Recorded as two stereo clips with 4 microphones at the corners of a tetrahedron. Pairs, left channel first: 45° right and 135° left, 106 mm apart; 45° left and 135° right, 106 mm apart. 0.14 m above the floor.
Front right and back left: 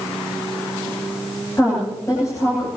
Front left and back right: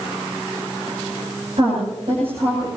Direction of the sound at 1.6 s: 105° right.